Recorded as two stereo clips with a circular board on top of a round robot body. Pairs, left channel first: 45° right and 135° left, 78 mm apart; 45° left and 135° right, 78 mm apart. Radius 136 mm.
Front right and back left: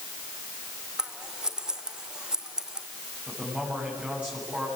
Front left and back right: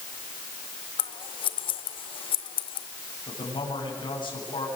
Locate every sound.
1.0 s scissors: 55° left, 0.8 m
3.3 s a man speaking: 60° left, 7.5 m